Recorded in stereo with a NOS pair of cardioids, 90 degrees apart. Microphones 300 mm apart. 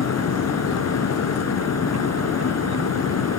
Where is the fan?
55° left.